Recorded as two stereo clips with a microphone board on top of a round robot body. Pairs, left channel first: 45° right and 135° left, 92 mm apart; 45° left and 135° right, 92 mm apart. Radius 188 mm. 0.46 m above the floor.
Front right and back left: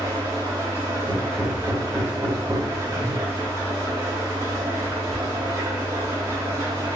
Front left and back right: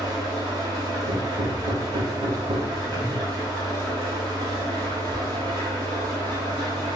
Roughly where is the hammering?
Behind right.